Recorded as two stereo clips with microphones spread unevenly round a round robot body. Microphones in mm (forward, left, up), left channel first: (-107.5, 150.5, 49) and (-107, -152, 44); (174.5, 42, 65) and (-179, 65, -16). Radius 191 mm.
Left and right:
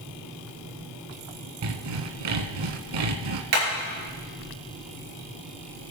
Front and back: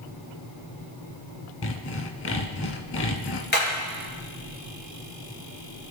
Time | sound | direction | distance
1.6 | sawing | 60° right | 0.9 m
3.5 | hammering | 70° right | 5.5 m